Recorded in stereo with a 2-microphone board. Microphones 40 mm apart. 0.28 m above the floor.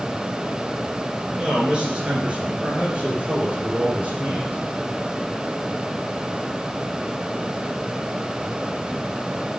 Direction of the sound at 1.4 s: 25° right (ahead or behind).